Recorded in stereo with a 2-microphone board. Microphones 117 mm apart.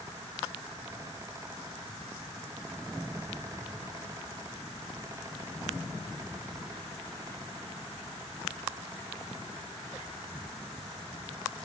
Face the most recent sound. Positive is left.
No sound to turn to.